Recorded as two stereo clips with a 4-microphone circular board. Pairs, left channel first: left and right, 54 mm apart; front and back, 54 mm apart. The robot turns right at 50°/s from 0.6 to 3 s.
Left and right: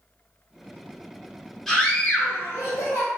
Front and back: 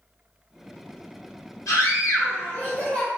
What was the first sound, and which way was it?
A scream, 5° left.